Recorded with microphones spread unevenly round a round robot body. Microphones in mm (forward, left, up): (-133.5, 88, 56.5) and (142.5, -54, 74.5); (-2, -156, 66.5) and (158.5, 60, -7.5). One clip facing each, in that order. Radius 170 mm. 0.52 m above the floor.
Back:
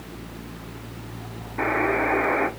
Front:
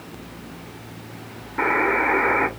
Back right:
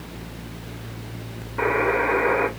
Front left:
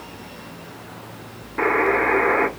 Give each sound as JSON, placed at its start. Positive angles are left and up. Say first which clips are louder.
{"t": 1.6, "sound": "a buzzer", "louder": "front 1 dB, front left 2 dB", "azimuth_deg": 25, "distance_m": 1.1}